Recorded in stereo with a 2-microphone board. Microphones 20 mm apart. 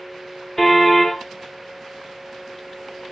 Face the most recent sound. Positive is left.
turn(degrees=15)  # may be behind; listen again after turning